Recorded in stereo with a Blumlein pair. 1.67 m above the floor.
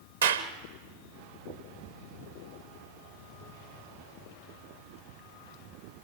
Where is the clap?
70° right, 1.3 m.